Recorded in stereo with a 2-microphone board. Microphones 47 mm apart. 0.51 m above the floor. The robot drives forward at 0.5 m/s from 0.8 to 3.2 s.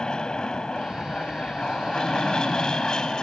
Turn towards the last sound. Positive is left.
turn(degrees=15)  # may be behind; listen again after turning